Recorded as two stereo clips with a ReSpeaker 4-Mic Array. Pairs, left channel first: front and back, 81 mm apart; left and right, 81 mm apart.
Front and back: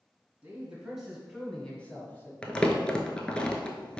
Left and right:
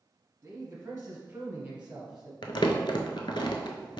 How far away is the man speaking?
About 1.3 m.